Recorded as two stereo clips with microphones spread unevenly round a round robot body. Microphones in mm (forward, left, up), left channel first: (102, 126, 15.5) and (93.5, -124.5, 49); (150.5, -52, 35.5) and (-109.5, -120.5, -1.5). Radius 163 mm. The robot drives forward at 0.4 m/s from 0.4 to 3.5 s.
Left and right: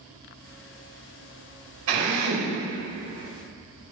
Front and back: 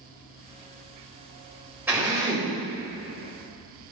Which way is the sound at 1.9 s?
85° right.